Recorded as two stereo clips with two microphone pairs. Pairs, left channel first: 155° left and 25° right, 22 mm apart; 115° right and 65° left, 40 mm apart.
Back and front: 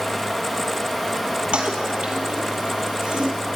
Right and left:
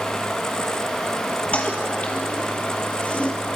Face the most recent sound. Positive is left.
turn(degrees=-60)